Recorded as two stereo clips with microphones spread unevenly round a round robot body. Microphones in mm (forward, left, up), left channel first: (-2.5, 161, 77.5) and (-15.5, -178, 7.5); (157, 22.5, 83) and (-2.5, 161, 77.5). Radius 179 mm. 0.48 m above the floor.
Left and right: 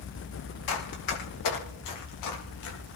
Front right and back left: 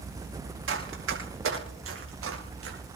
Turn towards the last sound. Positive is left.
turn(degrees=125)